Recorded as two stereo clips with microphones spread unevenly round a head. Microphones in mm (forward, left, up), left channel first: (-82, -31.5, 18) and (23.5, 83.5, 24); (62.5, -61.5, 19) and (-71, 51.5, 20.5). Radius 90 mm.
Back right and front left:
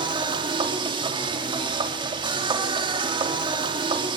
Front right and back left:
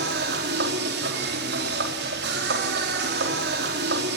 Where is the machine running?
105° left, 4 m.